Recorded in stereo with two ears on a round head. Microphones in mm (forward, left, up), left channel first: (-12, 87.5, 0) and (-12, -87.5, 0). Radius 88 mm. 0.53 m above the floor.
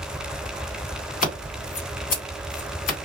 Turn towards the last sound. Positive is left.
turn(degrees=40)  # may be behind; listen again after turning